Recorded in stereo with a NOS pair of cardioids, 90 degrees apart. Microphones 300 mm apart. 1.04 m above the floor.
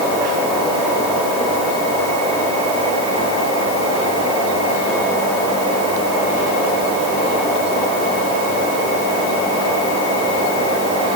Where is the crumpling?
I don't hear crumpling.